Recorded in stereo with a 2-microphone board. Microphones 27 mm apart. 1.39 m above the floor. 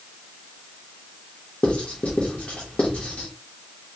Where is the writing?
50° left (ahead or behind), 1.2 m.